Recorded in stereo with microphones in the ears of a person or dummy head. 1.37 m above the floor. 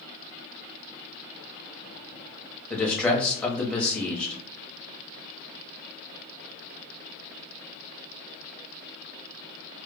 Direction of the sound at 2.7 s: 5° left (ahead or behind).